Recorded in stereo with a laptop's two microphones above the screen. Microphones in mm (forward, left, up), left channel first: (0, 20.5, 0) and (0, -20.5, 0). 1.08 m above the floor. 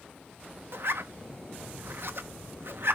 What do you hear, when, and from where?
0.7 s a zipper: 65° right (ahead or behind), 0.8 m